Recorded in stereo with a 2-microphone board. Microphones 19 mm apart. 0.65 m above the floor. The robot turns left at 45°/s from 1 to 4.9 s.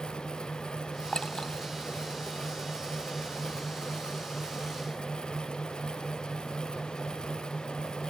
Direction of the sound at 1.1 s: 55° left (ahead or behind).